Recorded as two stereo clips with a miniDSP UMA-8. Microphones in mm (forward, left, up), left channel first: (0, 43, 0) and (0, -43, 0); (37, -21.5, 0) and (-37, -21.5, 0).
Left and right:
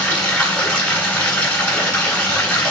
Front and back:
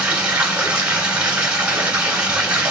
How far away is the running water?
About 1.0 m.